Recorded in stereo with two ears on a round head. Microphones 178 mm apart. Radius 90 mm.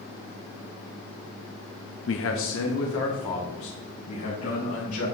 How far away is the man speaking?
About 0.7 m.